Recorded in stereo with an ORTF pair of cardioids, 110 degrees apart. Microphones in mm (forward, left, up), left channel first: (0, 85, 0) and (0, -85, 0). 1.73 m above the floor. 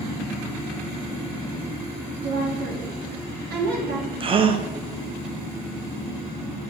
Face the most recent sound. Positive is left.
turn(degrees=-30)